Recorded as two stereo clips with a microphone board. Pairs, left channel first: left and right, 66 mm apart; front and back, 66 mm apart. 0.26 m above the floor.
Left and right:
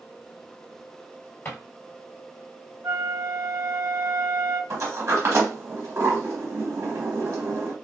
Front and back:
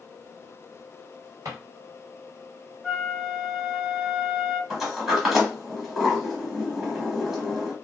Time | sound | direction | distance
1.4 | a drawer | 155° left | 1.5 m
2.8 | a flute | 95° right | 0.9 m
4.7 | a sliding door | 100° right | 1.2 m